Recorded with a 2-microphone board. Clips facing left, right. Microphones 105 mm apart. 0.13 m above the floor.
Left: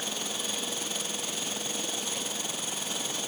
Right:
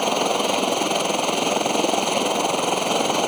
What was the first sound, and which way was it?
A helicopter, 65° right (ahead or behind).